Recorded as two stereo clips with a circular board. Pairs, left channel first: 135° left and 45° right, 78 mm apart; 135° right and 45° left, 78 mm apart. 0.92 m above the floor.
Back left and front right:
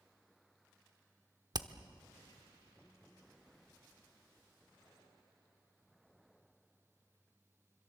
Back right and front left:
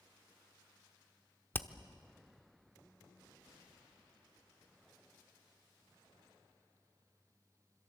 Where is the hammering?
75° right, 0.9 m.